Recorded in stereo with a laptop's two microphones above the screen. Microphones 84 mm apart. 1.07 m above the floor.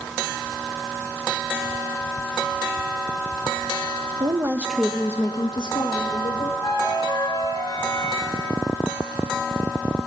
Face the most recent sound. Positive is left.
turn(degrees=55)  # may be behind; listen again after turning